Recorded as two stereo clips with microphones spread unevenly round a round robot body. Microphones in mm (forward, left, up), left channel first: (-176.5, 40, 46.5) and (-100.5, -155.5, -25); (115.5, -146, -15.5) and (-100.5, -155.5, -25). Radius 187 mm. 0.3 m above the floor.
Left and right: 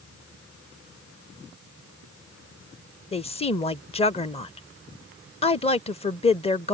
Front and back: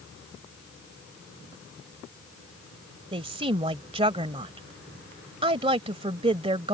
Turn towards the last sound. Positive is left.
turn(degrees=180)